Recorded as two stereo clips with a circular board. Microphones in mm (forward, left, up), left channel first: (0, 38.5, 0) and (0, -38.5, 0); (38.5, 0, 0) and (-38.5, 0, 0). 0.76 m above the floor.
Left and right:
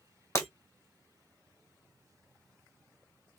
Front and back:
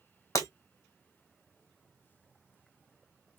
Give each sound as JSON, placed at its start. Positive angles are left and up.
{"t": 0.3, "sound": "breaking glass", "azimuth_deg": 40, "distance_m": 2.0}